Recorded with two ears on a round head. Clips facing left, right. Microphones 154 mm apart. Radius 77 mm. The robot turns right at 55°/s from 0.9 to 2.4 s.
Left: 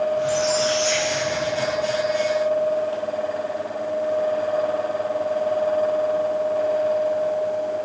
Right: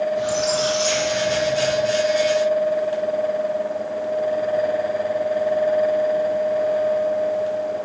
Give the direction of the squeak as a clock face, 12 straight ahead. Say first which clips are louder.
Even; 2 o'clock.